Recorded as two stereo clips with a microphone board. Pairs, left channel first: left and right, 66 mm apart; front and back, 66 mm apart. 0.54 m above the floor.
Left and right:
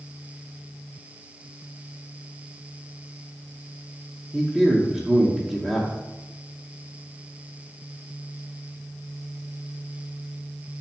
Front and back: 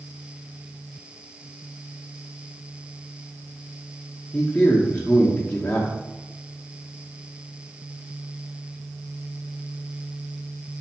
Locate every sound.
4.3 s a man speaking: 25° right, 0.8 m